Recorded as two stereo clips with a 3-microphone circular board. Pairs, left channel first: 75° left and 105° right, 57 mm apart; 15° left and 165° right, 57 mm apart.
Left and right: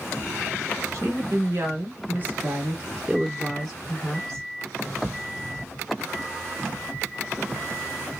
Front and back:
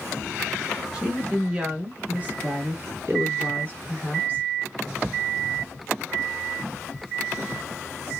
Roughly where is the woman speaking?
Right.